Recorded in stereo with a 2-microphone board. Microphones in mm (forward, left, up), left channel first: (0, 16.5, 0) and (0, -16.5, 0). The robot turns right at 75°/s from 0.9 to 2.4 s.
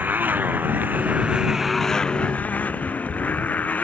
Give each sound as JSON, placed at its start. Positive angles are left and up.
{"t": 0.0, "sound": "a motorcycle", "azimuth_deg": -65}